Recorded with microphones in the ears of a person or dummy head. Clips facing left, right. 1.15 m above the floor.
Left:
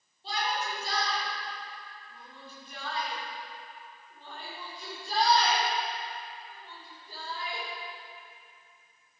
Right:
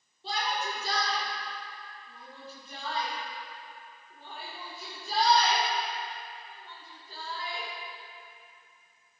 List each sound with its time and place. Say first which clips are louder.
0.2 s a shout: even; 75° right (ahead or behind), 3 m; by 7.7 s 15° left (ahead or behind), 4.5 m